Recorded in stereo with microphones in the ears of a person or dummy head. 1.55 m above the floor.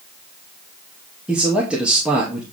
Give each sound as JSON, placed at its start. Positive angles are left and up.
{"t": 1.3, "sound": "a man speaking", "side_deg": -5, "distance_m": 2.5}